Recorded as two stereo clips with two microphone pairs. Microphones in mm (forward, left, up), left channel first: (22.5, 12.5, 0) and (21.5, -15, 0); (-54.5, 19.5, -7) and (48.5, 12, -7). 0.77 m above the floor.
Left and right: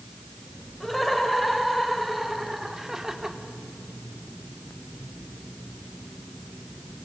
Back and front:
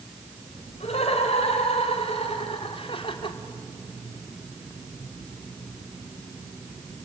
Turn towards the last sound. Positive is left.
turn(degrees=-155)